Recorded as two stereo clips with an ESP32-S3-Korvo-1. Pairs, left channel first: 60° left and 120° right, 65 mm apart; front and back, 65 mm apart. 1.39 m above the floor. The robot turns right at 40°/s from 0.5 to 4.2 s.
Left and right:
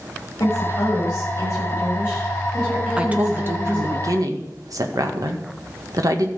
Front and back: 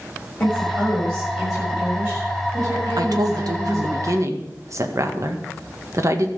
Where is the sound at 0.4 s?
55° left, 7 m; by 4.0 s 165° right, 7 m.